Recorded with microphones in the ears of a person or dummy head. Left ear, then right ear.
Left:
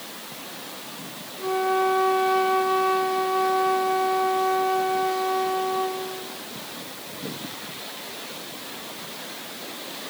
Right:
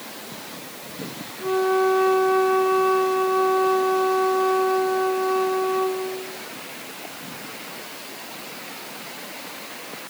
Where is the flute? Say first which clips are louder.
Right 2 dB; 30° left (ahead or behind), 1.2 m.